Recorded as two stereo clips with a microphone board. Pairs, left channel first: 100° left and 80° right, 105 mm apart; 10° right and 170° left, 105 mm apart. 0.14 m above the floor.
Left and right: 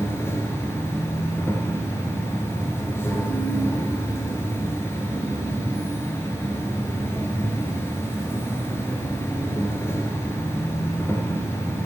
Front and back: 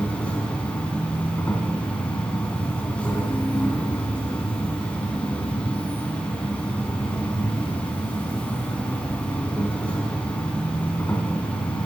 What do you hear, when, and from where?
0.0 s an insect: 55° left, 1.9 m